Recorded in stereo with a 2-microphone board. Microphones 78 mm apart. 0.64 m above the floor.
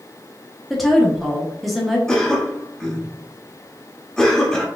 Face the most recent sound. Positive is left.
turn(degrees=5)  # may be behind; listen again after turning